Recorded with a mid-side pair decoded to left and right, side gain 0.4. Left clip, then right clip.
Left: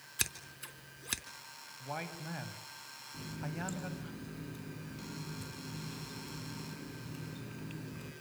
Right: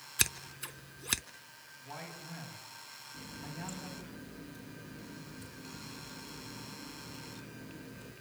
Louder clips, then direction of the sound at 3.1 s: Left 3 dB; 40° left.